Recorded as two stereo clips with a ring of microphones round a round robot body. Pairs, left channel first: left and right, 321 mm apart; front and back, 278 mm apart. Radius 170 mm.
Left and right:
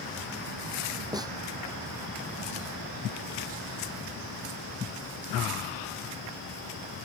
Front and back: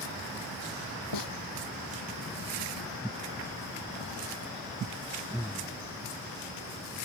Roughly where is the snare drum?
Ahead.